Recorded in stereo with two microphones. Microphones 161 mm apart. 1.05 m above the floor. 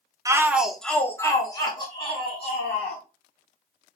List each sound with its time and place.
0.2 s a shout: 20° right (ahead or behind), 0.6 m; by 3.0 s 40° left (ahead or behind), 1.7 m